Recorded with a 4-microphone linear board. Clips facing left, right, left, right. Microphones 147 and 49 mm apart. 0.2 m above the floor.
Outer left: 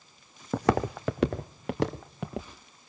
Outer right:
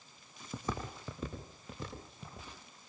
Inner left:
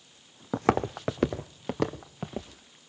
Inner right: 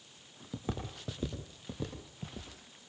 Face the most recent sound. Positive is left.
turn(degrees=75)  # may be behind; listen again after turning